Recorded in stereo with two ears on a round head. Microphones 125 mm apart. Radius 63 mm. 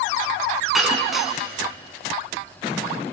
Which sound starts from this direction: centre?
Breaking glass, at 0.7 s.